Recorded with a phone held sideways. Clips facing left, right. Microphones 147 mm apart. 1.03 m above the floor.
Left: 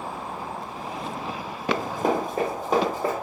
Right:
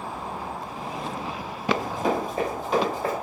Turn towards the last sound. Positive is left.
turn(degrees=45)  # may be behind; listen again after turning